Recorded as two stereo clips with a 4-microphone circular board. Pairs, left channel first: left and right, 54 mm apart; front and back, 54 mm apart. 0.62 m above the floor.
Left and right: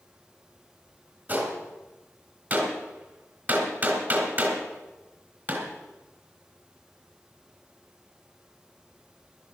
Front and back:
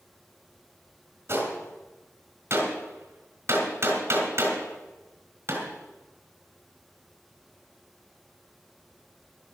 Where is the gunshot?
145° right, 3 m.